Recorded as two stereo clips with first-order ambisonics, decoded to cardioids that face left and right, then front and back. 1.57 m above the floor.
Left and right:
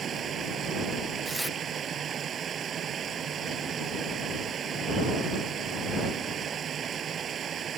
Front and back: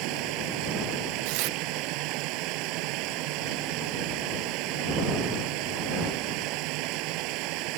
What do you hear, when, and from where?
0.0 s running water: 155° right
1.2 s tearing paper: straight behind